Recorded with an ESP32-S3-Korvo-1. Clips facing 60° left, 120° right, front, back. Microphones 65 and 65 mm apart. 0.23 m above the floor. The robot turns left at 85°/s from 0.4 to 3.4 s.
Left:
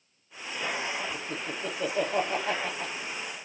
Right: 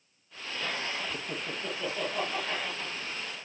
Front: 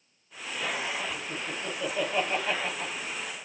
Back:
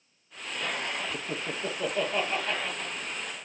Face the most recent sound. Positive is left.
turn(degrees=-20)